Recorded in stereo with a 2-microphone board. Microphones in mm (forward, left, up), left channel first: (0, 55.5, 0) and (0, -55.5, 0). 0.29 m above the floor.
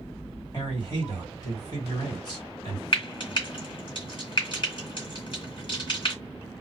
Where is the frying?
50° left (ahead or behind), 1.5 m.